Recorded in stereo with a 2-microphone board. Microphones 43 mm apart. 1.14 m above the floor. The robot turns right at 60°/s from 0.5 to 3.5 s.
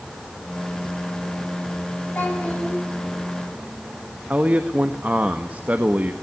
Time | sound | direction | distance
2.1 | a child speaking | 135° left | 9 m
4.3 | a man speaking | 40° right (ahead or behind) | 1.3 m